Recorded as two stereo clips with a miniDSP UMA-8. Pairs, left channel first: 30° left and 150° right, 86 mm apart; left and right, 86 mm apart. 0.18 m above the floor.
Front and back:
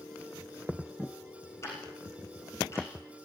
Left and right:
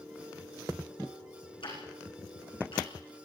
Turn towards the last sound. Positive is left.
turn(degrees=85)